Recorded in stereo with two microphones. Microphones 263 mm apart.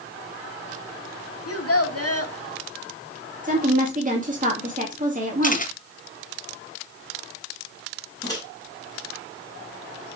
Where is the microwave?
15° left (ahead or behind), 4.5 m.